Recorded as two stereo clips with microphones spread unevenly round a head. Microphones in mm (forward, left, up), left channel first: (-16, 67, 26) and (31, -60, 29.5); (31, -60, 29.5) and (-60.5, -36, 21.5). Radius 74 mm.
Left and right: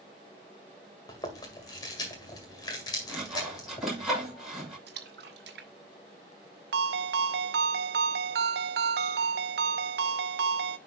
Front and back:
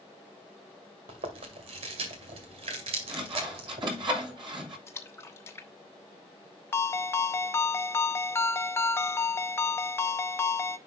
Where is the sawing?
160° right, 6 m.